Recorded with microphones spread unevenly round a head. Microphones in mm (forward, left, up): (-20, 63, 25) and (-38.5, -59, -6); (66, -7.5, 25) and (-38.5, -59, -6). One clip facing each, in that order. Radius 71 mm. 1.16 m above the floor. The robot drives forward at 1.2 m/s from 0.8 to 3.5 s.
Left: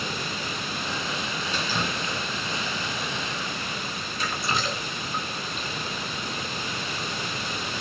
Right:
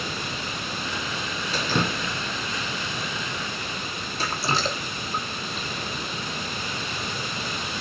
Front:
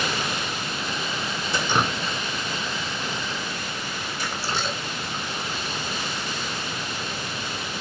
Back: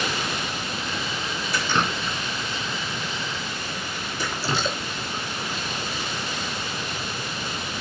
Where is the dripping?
35° right, 1.1 m; by 5.7 s 160° right, 1.7 m.